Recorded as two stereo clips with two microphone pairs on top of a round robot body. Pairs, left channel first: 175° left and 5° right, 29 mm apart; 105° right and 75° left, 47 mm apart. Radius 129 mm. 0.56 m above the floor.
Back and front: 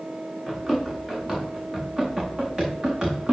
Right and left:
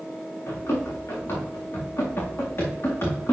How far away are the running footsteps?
About 4.5 m.